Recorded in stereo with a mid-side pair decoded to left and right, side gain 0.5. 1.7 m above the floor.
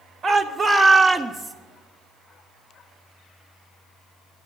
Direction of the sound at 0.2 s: 45° right.